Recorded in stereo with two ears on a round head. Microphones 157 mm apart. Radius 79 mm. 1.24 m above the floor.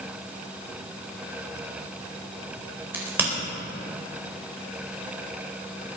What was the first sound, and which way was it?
A crack, 10° right (ahead or behind).